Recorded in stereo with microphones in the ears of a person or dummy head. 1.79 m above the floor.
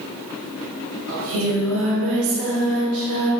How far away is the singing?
About 4 m.